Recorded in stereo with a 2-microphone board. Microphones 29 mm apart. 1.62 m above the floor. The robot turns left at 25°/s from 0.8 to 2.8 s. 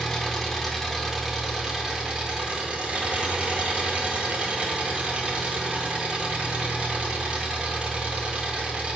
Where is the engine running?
5° left, 1.4 m; by 9.0 s 45° right, 1.4 m.